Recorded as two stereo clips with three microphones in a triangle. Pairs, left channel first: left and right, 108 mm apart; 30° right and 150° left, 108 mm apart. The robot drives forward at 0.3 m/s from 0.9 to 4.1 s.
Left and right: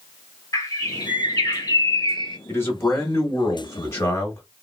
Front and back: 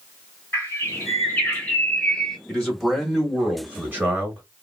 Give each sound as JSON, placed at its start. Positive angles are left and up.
{"t": 0.5, "sound": "a bird", "azimuth_deg": 35, "distance_m": 1.0}
{"t": 2.5, "sound": "a man speaking", "azimuth_deg": 45, "distance_m": 0.9}